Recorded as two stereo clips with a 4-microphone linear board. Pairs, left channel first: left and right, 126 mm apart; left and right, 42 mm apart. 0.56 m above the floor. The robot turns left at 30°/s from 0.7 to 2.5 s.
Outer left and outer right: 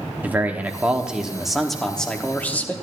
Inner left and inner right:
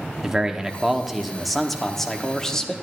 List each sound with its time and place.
0.2 s a man speaking: 10° right (ahead or behind), 1.2 m; by 2.7 s 15° left (ahead or behind), 1.2 m